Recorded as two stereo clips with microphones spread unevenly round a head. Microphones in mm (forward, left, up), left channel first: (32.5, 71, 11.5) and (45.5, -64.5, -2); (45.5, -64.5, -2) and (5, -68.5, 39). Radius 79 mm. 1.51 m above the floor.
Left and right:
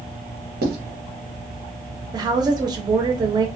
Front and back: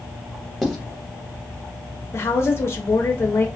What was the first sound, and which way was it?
Writing, 80° right.